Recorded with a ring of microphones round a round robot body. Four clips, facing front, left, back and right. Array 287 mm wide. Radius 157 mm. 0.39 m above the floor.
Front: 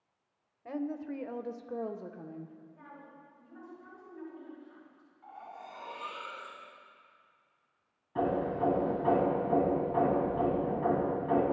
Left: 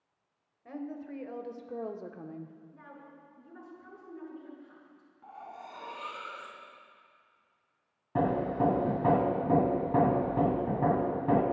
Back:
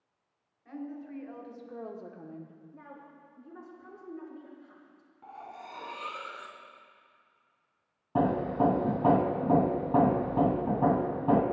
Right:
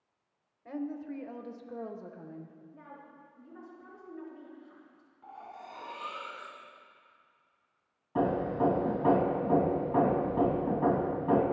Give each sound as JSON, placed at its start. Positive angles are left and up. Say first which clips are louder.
{"t": 0.7, "sound": "a woman speaking", "louder": "right 3 dB, front 5 dB", "azimuth_deg": 0, "distance_m": 1.8}
{"t": 2.7, "sound": "a woman speaking", "louder": "even, back 2 dB", "azimuth_deg": 160, "distance_m": 6.5}
{"t": 5.2, "sound": "cutlery clinking", "louder": "left 1 dB, back 2 dB", "azimuth_deg": 175, "distance_m": 3.0}
{"t": 8.2, "sound": "hammering", "louder": "even, back 4 dB", "azimuth_deg": 155, "distance_m": 1.9}